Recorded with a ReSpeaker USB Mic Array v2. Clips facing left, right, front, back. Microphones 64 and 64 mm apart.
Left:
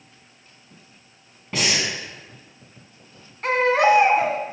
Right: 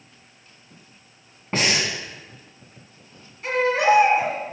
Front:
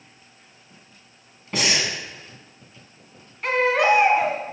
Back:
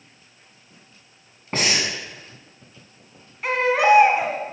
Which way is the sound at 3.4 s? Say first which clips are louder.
Left 2 dB, back 1 dB; 95° left.